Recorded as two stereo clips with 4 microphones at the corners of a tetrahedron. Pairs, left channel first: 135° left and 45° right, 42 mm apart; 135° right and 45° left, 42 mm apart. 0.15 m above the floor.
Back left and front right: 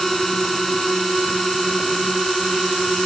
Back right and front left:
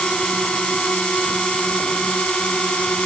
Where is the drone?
150° right; by 3.1 s 140° right.